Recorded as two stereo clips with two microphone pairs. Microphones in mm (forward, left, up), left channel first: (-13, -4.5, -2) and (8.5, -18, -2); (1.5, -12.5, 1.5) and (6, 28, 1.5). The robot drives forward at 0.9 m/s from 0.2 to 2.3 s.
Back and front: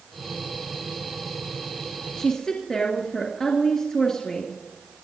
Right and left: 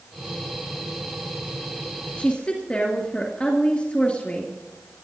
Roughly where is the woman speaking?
Behind right.